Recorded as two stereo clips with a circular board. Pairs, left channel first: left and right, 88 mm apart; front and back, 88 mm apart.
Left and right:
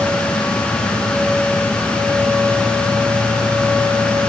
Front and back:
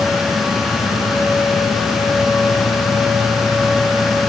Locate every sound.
Only background noise.